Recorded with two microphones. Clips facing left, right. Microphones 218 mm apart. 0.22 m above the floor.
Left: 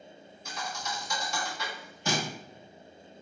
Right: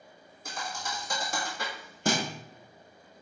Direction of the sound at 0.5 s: 55° right (ahead or behind).